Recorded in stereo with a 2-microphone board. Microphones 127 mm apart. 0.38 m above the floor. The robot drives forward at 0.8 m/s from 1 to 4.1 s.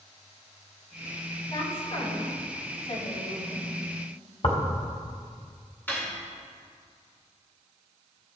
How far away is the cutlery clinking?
About 2 m.